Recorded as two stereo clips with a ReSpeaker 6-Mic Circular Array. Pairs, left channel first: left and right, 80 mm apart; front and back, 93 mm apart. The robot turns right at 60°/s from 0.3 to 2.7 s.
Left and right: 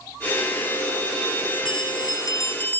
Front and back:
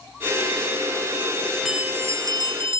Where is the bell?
95° left; by 2.8 s 160° left.